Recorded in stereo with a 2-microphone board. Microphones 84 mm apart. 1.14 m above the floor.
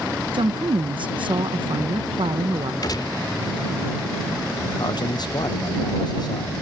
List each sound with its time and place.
0.3 s a woman speaking: 75° right (ahead or behind)
2.8 s a gunshot: 55° left (ahead or behind)
4.8 s a man speaking: 55° left (ahead or behind)